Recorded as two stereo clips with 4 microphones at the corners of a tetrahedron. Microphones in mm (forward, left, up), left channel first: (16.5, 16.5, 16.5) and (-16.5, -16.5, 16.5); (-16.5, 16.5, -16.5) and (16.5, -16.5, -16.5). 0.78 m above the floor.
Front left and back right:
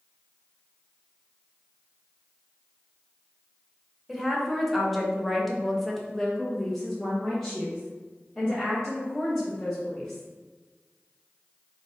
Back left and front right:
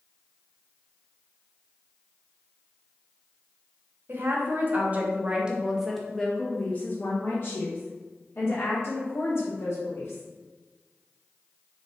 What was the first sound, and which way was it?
A woman speaking, 45° right.